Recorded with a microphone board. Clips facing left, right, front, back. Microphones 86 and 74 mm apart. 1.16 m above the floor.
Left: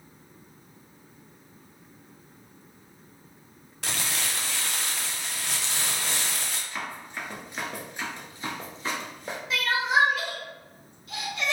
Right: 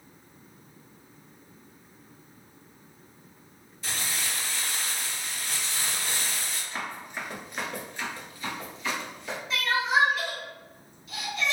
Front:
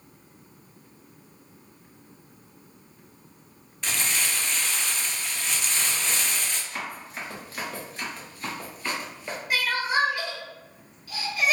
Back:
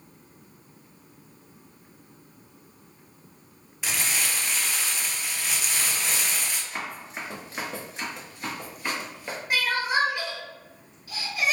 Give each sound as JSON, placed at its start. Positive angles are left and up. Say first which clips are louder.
{"t": 3.8, "sound": "crumpling", "louder": "left 2 dB, even", "azimuth_deg": 95, "distance_m": 0.5}
{"t": 6.7, "sound": "running footsteps", "louder": "right 2 dB, even", "azimuth_deg": -135, "distance_m": 1.2}
{"t": 9.5, "sound": "crying", "louder": "left 1 dB, even", "azimuth_deg": 120, "distance_m": 1.8}